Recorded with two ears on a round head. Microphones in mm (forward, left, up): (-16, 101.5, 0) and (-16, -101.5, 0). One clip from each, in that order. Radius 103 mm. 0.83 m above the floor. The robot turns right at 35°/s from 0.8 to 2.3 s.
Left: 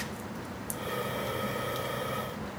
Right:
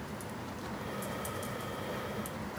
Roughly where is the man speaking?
No man speaking in this recording.